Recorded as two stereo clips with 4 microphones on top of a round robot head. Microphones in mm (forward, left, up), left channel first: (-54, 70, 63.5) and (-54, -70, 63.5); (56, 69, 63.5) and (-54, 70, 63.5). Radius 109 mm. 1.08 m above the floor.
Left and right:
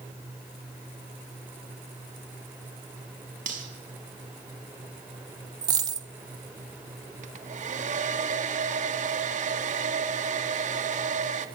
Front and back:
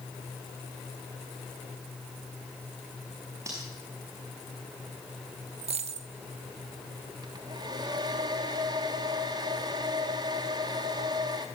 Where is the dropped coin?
145° right, 0.9 m.